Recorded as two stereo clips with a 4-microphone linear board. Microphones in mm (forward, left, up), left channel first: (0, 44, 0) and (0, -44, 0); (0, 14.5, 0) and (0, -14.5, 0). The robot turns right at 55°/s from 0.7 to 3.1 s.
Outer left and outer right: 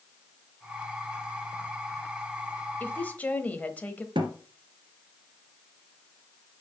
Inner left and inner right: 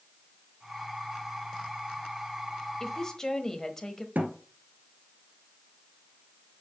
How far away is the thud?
About 1.7 m.